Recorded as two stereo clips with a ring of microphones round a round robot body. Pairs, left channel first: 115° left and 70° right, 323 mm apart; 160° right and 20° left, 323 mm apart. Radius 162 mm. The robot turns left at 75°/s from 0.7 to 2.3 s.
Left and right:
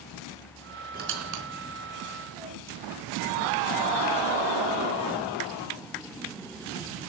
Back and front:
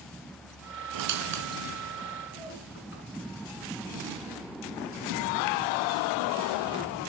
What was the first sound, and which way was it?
A squeak, straight ahead.